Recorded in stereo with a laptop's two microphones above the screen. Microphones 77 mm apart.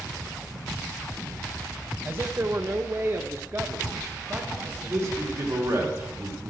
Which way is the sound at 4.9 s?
45° right (ahead or behind).